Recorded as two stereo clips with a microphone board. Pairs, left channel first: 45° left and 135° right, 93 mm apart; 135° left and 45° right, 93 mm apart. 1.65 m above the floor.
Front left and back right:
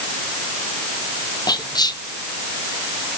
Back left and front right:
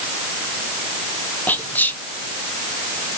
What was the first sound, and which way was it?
Whispering, 70° left.